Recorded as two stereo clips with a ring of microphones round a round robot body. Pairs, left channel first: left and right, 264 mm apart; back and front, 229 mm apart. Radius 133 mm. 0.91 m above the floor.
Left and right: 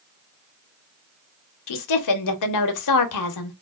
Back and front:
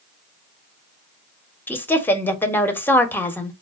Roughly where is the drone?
I don't hear a drone.